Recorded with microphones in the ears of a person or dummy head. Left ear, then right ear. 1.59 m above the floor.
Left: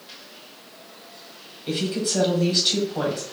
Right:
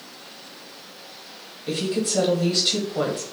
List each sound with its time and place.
1.7 s a woman speaking: centre (ahead or behind), 1.0 m